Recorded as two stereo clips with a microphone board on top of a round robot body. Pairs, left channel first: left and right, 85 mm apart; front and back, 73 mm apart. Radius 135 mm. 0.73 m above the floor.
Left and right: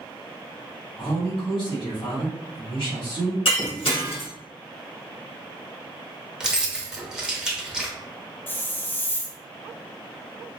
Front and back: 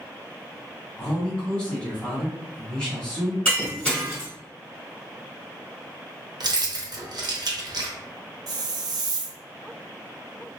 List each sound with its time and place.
1.0 s a man speaking: 75° left, 1.9 m
3.5 s breaking glass: 70° left, 1.6 m
6.4 s keys jangling: 170° right, 0.8 m
8.5 s a hiss: 155° left, 0.5 m